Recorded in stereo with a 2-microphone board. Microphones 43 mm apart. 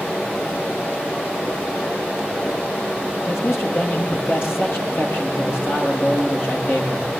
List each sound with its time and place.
3.3 s a man speaking: 65° left (ahead or behind), 10 m